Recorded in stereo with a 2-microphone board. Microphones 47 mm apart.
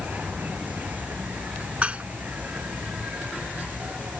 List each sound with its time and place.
0.0 s an insect: 40° right (ahead or behind)
1.8 s dishes clattering: 30° right (ahead or behind)